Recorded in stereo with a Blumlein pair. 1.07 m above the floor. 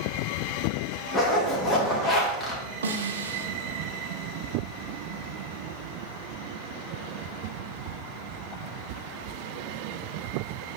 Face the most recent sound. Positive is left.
turn(degrees=-70)